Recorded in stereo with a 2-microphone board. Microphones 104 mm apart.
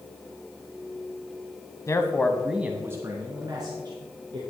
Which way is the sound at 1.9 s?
30° left (ahead or behind).